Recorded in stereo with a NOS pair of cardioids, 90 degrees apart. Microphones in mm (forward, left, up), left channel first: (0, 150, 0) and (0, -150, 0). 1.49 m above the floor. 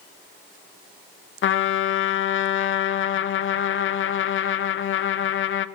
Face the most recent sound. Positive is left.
turn(degrees=40)